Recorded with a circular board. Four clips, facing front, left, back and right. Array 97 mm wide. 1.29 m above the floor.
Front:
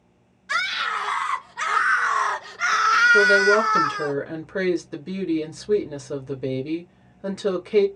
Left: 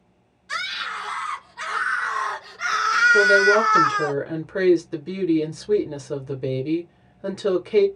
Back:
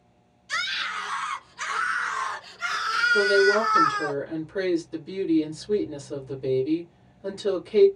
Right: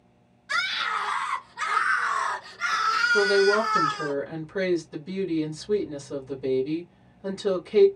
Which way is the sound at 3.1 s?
50° left.